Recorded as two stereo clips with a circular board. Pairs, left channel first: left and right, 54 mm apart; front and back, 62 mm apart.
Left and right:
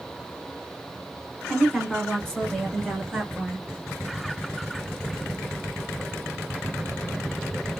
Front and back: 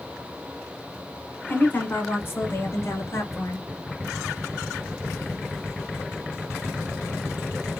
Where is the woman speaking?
25° left, 1.3 m; by 3.7 s 10° left, 2 m.